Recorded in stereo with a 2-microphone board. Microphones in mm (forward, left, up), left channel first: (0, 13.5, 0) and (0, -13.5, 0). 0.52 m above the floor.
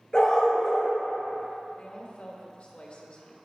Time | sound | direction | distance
0.1 | a dog barking | 30° left (ahead or behind) | 2.5 m
1.8 | a woman speaking | 50° left (ahead or behind) | 1.2 m